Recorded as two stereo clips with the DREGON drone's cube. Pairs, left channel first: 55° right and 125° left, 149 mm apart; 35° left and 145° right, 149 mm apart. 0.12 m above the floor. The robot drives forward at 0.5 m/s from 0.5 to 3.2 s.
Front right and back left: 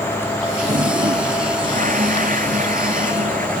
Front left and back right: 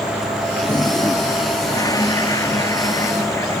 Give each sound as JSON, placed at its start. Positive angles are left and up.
{"t": 0.6, "sound": "a toilet flushing", "azimuth_deg": 100}